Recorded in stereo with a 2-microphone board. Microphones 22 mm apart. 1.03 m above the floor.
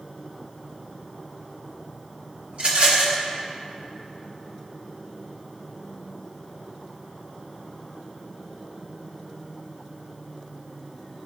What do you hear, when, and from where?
2.5 s a rattle: 55° right (ahead or behind), 1.0 m